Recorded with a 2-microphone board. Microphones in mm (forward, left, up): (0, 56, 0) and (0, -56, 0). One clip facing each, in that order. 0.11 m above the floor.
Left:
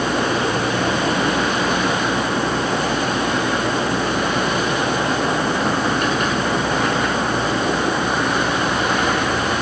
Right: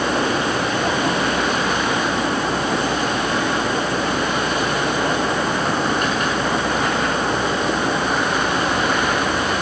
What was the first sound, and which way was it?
Only background noise.